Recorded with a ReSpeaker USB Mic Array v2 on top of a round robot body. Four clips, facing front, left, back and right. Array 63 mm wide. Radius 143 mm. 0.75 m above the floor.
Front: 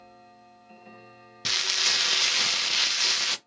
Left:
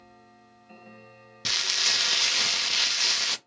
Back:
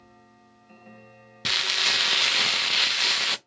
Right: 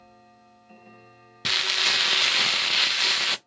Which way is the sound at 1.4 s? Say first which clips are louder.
Right 5 dB, back 3 dB; 120° right.